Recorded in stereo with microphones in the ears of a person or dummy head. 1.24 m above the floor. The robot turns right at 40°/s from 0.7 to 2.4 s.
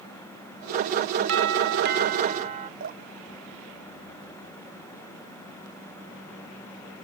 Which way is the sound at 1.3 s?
90° right.